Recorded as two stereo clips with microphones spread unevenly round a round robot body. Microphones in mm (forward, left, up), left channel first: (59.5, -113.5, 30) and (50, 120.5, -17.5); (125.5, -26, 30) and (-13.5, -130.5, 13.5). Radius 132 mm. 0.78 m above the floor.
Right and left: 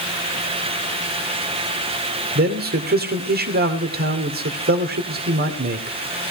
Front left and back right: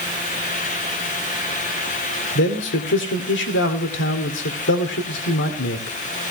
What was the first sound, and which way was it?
A man speaking, 50° left.